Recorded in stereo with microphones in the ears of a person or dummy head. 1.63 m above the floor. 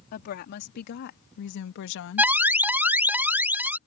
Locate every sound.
0.1 s a woman speaking: 55° left (ahead or behind); by 2.3 s 80° left
2.2 s an alarm: 10° right (ahead or behind)